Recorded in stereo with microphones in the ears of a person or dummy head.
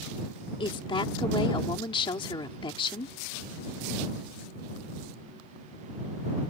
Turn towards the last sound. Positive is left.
turn(degrees=30)  # may be behind; listen again after turning